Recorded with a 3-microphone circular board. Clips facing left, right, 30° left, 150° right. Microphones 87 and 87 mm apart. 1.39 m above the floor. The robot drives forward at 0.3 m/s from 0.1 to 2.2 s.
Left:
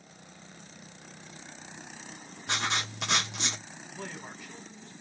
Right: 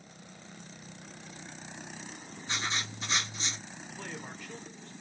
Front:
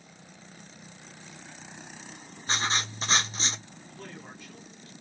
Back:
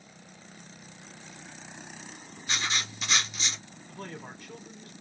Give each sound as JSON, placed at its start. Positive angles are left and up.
{"t": 2.5, "sound": "writing", "azimuth_deg": 85, "distance_m": 0.8}
{"t": 3.9, "sound": "a man speaking", "azimuth_deg": 170, "distance_m": 1.9}